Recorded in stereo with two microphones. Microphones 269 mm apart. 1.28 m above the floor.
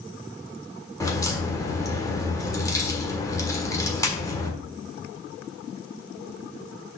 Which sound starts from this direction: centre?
A crack, at 1.0 s.